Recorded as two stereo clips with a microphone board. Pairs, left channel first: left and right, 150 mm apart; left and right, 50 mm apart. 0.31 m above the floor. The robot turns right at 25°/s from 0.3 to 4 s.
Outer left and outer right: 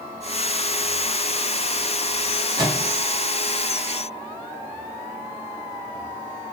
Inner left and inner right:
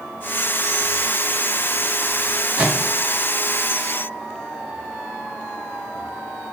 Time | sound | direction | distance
2.6 | a microwave | 30° right (ahead or behind) | 1.5 m